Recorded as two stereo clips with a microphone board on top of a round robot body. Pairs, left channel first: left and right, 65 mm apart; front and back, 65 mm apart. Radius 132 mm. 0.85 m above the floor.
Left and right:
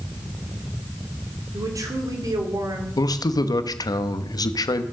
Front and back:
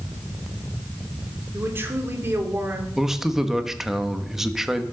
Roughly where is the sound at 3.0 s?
Left.